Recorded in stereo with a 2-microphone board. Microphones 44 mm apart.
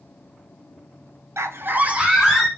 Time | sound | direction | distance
1.4 | a scream | 85° right | 0.5 m